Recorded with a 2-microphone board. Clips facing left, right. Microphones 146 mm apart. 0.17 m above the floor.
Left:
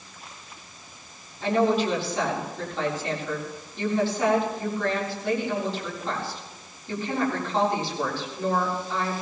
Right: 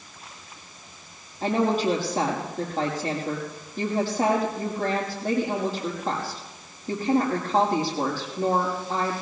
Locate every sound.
1.4 s a woman speaking: 40° right (ahead or behind), 5.5 m